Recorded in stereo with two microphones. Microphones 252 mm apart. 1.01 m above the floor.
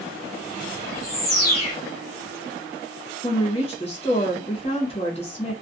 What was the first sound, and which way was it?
A bird, 40° left (ahead or behind).